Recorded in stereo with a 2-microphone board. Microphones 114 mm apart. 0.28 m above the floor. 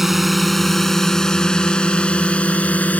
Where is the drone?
Centre (ahead or behind); by 3.0 s 15° left (ahead or behind).